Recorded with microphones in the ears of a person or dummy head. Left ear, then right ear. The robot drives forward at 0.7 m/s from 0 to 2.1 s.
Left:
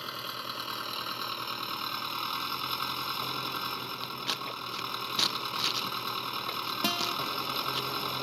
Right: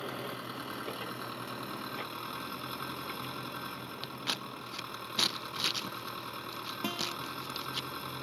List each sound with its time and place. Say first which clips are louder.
0.0 s an engine running: left 3 dB; 30° left (ahead or behind); by 8.2 s 40° left (ahead or behind)
4.0 s scissors: even; 10° left (ahead or behind)
6.8 s a guitar: left 5 dB; 35° left (ahead or behind)